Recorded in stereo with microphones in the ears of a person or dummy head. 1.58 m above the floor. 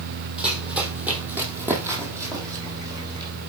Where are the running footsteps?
5° right (ahead or behind), 3.5 m; by 3.3 s 25° right (ahead or behind), 4 m.